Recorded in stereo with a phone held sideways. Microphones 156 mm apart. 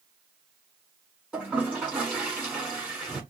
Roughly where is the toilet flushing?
Centre.